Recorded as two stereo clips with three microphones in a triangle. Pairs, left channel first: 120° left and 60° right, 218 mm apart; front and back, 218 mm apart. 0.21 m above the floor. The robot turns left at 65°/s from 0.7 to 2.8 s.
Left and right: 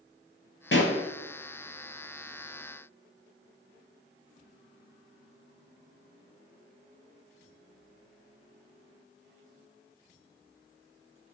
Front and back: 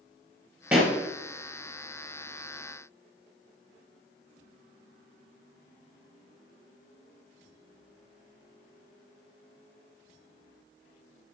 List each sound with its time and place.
0.7 s a pop: 95° left, 1.2 m; by 1.0 s 75° left, 1.2 m